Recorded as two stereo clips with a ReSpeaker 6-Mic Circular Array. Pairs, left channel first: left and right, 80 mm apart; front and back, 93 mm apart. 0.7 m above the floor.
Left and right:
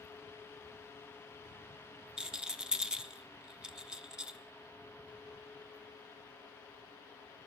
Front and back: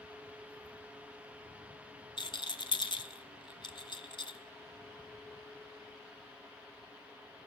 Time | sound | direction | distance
2.2 | a rattle | 10° right | 0.5 m